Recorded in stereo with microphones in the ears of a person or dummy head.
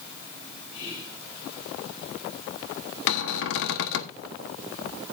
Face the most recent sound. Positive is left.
turn(degrees=70)  # may be behind; listen again after turning